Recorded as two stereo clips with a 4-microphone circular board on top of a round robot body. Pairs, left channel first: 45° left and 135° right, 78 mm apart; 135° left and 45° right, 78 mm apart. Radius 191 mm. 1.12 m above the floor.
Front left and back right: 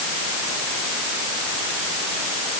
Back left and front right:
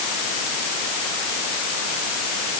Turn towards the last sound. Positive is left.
No sound to turn to.